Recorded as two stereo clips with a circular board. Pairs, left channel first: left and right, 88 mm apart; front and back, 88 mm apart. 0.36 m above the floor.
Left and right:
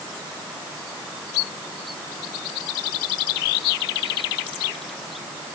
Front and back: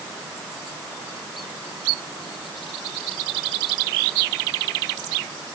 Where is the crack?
I don't hear a crack.